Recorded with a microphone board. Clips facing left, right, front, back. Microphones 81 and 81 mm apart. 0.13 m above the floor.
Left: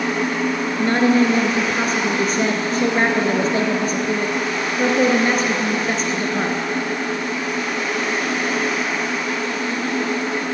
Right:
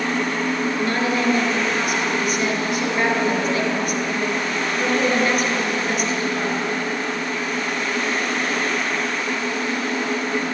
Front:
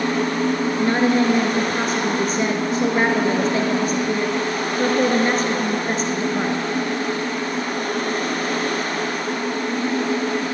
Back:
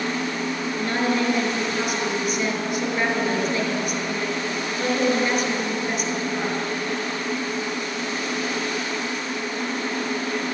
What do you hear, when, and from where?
0.8 s a woman speaking: 45° left, 2 m